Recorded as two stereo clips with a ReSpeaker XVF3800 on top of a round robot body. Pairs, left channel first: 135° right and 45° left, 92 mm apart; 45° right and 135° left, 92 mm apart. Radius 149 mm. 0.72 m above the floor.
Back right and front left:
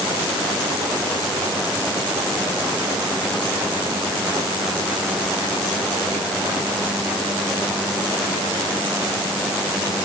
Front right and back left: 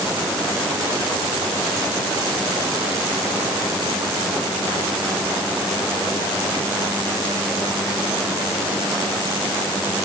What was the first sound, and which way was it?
Only background noise.